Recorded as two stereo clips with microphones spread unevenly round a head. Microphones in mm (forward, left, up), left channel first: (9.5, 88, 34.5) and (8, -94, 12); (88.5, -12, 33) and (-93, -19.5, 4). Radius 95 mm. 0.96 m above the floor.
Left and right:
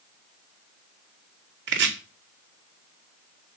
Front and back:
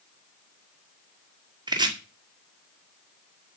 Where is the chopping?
110° right, 2 m.